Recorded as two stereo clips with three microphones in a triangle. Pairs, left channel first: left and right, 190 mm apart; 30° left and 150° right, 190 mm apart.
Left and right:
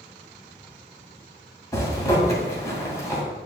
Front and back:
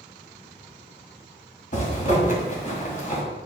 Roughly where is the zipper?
Ahead left.